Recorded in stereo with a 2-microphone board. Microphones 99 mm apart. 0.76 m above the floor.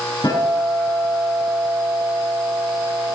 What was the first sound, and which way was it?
A guitar, 45° left (ahead or behind).